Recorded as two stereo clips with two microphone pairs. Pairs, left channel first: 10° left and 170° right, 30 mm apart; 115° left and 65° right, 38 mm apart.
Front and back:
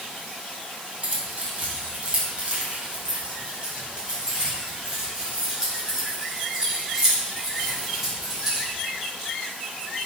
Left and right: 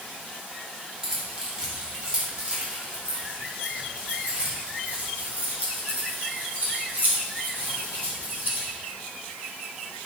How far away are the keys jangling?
About 2 m.